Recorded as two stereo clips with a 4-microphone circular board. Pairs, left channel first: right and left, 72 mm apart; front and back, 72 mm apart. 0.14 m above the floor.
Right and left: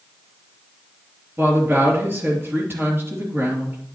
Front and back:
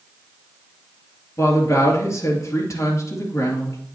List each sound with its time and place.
1.4 s a woman speaking: 35° left, 3 m